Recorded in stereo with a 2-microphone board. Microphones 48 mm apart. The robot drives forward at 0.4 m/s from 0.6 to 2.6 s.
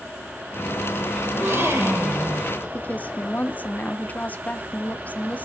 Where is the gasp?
70° right (ahead or behind), 4 m; by 2.5 s 65° right (ahead or behind), 4 m.